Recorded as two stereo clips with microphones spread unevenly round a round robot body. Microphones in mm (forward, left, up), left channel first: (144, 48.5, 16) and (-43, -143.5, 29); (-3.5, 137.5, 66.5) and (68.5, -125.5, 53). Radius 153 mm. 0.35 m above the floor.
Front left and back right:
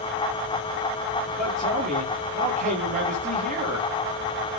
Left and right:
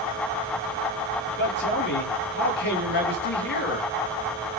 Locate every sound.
1.4 s a man speaking: 160° left, 8.5 m